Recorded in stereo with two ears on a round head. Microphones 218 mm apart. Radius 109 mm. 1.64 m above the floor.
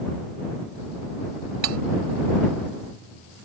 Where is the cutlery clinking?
75° right (ahead or behind).